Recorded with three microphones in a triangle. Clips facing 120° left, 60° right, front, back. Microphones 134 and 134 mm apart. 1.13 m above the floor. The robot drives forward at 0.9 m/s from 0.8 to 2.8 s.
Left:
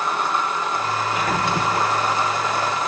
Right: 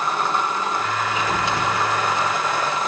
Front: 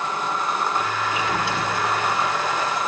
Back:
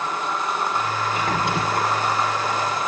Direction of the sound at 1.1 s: 150° left.